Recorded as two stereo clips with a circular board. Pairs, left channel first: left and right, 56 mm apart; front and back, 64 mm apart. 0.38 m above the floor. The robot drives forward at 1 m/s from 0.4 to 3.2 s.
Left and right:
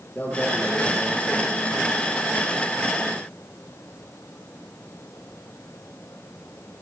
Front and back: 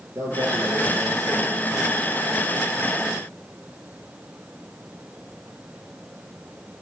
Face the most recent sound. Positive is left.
turn(degrees=155)